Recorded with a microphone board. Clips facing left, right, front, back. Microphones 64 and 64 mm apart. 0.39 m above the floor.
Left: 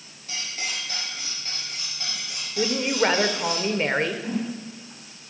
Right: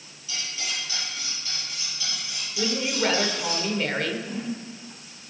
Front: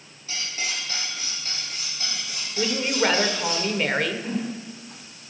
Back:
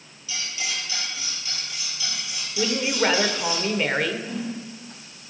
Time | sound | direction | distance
0.3 | cutlery clinking | 50° left | 5 m
2.6 | a woman speaking | 90° left | 0.9 m
4.2 | a whoosh | 55° left | 2.0 m